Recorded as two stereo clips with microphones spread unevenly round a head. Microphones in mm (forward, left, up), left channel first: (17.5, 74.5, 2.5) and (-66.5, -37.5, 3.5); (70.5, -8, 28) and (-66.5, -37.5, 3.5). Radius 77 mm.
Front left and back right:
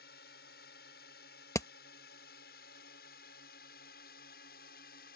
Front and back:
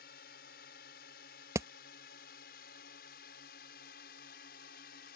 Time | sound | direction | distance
0.0 | a drone | 40° left | ?
1.6 | hammering | 120° left | ?